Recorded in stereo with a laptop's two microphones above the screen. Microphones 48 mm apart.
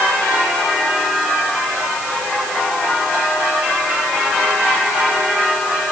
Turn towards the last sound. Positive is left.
No sound to turn to.